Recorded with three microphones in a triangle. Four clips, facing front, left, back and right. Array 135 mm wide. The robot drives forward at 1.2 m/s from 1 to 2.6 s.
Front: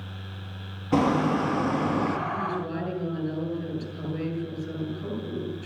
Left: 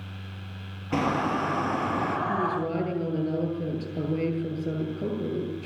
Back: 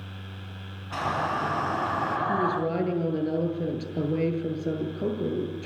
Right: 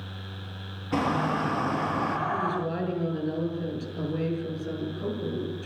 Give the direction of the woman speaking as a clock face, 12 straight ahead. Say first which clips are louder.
Left 1 dB, back 4 dB; 7 o'clock.